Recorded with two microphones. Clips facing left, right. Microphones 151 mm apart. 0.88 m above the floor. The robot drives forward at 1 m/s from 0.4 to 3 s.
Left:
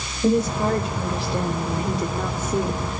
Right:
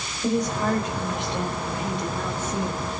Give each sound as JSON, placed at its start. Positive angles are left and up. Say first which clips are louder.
{"t": 0.2, "sound": "a woman speaking", "louder": "left 4 dB", "side_deg": 30, "distance_m": 4.5}